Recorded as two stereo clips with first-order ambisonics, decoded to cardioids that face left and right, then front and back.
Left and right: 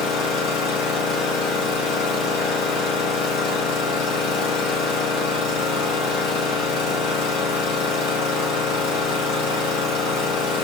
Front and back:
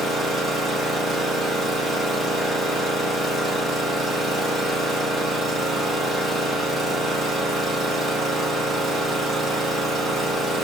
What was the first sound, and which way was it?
An engine running, 80° left.